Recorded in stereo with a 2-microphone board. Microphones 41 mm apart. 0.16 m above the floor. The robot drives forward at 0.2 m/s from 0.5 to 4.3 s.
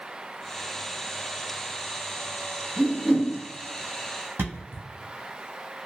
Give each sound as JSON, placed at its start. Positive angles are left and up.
{"t": 2.8, "sound": "a whoosh", "side_deg": -40, "distance_m": 1.5}
{"t": 4.4, "sound": "a thud", "side_deg": -75, "distance_m": 1.3}